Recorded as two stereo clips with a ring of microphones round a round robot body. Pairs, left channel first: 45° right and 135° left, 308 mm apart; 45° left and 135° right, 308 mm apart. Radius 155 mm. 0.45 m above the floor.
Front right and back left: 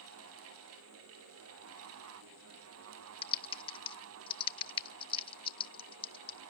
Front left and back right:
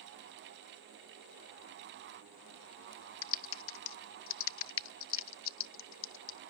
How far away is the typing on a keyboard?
About 0.7 m.